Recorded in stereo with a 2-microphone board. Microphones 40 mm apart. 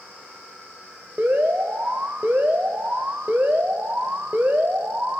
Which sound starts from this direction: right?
An alarm, at 1.2 s.